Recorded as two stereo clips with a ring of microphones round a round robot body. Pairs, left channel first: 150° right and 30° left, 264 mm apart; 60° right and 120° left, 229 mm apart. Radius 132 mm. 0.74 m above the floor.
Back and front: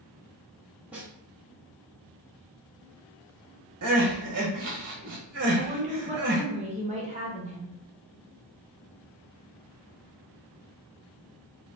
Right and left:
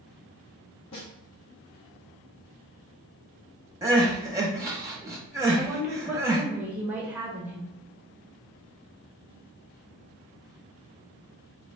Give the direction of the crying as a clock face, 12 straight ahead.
10 o'clock.